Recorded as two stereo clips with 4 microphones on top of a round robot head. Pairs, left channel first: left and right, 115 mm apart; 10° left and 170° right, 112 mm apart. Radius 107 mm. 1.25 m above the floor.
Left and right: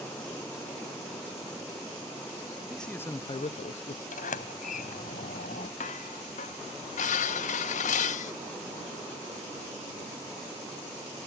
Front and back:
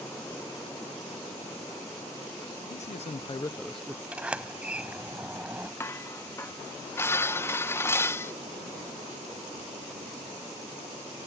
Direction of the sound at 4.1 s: 110° left.